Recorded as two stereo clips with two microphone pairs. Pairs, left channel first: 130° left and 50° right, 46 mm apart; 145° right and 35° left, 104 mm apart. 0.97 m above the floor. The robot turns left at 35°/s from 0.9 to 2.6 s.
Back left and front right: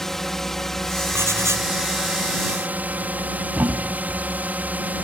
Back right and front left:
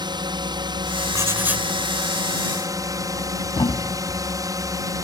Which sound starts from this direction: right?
A thud, at 3.5 s.